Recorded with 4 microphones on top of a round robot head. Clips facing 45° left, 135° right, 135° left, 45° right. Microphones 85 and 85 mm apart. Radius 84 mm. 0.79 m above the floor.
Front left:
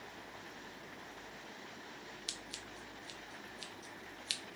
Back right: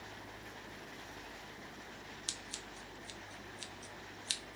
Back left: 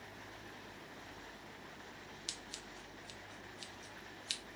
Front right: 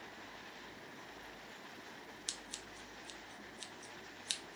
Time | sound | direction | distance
2.3 | scissors | 85° right | 0.7 m